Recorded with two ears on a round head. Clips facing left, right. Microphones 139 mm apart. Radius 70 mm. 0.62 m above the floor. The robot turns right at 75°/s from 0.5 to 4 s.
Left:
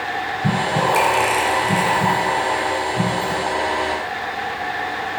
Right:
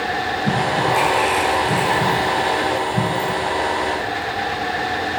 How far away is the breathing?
About 4 m.